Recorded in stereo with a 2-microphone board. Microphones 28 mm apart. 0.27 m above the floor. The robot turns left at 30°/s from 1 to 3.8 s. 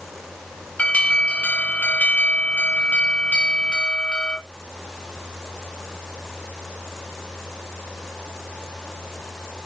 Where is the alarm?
115° left, 3 m; by 4.4 s 30° left, 3 m.